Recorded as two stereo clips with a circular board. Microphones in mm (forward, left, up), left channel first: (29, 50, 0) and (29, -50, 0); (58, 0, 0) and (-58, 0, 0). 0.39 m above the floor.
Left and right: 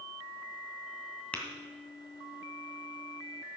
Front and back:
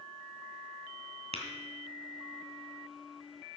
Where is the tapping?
165° left, 2.0 m.